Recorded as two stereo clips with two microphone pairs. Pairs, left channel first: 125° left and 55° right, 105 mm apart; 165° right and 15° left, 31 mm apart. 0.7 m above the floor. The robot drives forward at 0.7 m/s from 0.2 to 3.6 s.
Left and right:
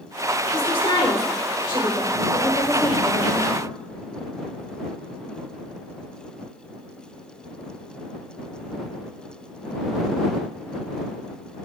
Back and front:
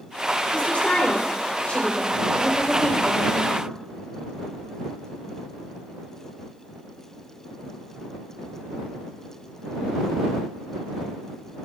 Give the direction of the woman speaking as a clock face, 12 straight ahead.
7 o'clock.